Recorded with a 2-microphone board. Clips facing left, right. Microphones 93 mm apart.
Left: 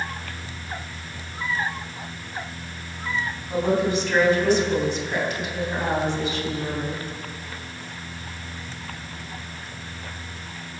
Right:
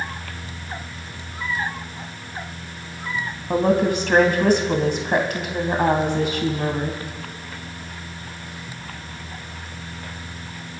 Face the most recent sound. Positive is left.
turn(degrees=-60)  # may be behind; listen again after turning